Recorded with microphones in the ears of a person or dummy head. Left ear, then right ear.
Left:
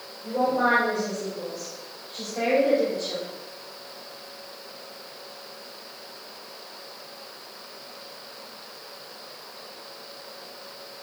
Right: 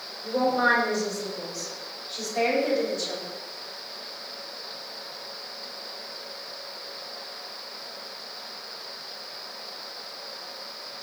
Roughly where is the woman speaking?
Right.